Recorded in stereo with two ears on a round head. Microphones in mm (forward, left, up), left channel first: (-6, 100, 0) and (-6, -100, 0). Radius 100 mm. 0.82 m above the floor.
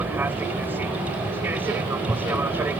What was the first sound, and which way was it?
An aircraft, 10° right (ahead or behind).